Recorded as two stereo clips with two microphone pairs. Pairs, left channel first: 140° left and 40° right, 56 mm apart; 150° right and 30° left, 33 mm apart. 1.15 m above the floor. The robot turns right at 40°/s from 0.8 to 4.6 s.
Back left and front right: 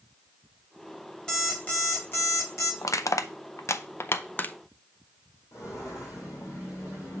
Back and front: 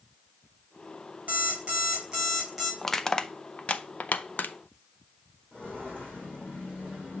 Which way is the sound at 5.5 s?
165° left.